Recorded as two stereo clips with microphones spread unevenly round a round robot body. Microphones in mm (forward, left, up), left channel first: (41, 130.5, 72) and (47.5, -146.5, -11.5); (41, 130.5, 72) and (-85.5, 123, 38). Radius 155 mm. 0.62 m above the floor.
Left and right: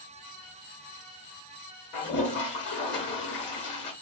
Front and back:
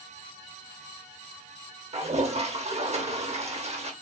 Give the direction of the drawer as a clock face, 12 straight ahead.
No drawer in this recording.